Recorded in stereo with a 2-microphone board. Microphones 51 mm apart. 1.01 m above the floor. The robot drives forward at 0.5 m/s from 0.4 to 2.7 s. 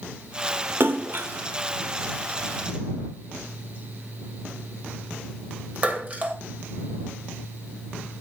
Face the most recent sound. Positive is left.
turn(degrees=-30)  # may be behind; listen again after turning